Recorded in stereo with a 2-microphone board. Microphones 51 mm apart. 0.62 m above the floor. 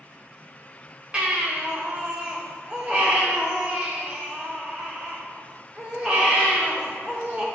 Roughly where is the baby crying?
Right.